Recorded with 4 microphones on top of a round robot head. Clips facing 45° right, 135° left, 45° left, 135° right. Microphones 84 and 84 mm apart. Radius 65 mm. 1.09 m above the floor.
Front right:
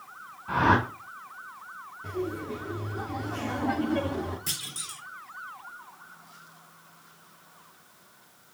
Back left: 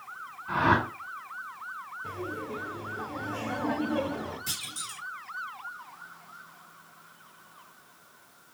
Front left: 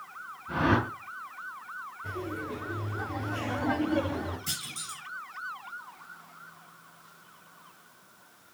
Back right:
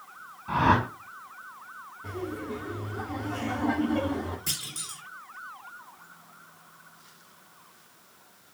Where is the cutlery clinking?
I don't hear cutlery clinking.